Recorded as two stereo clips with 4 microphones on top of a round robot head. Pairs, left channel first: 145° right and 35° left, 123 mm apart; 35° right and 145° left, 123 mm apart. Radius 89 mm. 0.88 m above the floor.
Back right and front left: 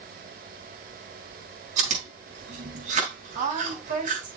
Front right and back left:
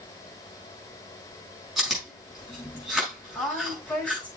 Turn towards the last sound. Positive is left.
turn(degrees=50)